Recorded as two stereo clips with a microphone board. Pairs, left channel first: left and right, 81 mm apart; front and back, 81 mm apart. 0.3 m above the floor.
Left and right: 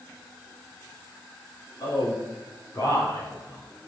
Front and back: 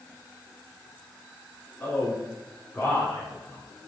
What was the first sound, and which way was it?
A man speaking, 70° left.